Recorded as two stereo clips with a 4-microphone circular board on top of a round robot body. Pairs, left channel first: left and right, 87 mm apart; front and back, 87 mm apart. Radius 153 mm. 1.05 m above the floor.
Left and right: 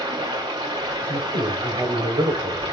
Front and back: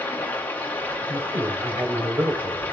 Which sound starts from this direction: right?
Running water, at 0.0 s.